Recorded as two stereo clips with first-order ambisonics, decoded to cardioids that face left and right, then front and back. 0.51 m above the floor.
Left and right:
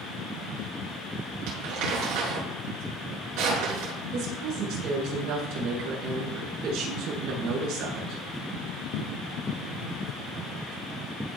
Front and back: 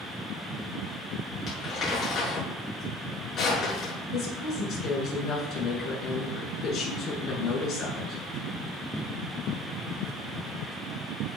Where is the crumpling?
55° right, 8 m.